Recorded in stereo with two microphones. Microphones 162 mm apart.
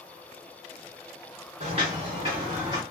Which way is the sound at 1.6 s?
45° right (ahead or behind).